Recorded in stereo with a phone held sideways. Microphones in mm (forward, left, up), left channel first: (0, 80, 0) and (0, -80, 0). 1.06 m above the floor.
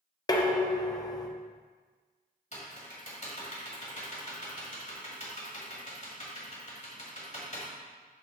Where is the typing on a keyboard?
45° left (ahead or behind), 1.7 m.